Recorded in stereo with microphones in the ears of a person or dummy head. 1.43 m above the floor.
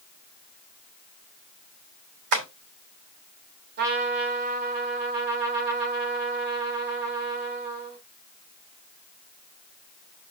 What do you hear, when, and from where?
2.3 s tapping: 60° right (ahead or behind), 3 m
3.8 s a trumpet: 55° right (ahead or behind), 1.8 m